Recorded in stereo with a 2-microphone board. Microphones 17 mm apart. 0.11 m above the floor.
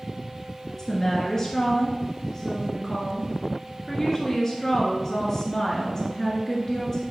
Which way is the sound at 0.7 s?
25° left (ahead or behind).